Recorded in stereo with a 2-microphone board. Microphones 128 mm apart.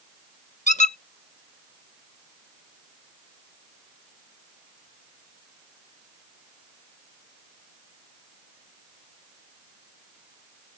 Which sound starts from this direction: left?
A squeak, at 0.7 s.